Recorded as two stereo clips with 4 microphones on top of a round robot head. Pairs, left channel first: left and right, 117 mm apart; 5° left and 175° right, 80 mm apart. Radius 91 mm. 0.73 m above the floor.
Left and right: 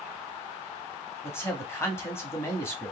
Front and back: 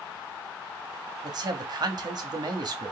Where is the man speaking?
160° left, 1.3 m.